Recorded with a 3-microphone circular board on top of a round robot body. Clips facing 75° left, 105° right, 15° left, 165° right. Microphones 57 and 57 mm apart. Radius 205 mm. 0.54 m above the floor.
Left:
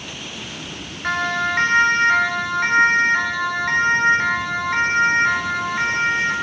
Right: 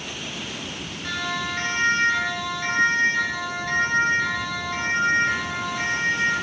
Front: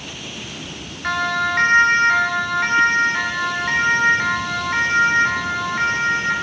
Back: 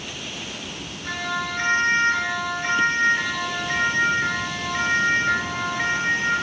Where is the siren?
35° left, 4.5 m.